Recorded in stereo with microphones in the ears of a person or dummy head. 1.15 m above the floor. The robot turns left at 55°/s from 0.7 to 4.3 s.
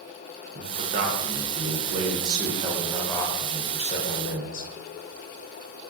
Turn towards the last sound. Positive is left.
turn(degrees=100)